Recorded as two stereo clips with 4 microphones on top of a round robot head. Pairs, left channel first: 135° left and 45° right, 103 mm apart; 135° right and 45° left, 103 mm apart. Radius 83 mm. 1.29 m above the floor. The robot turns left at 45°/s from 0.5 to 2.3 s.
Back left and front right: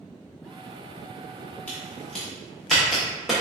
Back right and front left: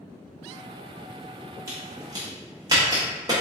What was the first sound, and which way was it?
A crack, 75° left.